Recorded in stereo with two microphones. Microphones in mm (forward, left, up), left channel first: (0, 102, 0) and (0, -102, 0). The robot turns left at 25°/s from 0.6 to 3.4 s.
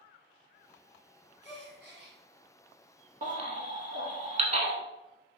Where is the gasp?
65° right (ahead or behind), 1.9 m; by 2.2 s 60° right (ahead or behind), 1.9 m.